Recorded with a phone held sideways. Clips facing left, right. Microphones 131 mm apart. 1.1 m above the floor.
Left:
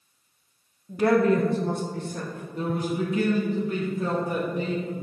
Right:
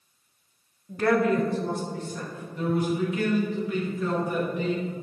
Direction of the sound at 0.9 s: Centre (ahead or behind).